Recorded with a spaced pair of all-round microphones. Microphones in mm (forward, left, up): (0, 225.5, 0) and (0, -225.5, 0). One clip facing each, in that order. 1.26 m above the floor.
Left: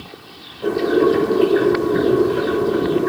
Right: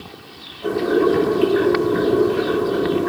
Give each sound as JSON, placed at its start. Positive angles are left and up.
{"t": 0.6, "sound": "boiling", "side_deg": 70, "distance_m": 8.0}